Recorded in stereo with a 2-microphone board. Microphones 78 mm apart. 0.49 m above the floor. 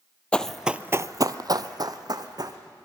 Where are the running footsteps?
15° left (ahead or behind), 0.7 m; by 2.6 s 55° right (ahead or behind), 1.8 m.